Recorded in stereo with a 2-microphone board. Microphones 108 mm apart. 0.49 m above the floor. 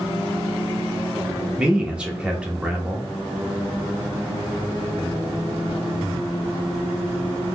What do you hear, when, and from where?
1.6 s a man speaking: 10° right (ahead or behind), 0.7 m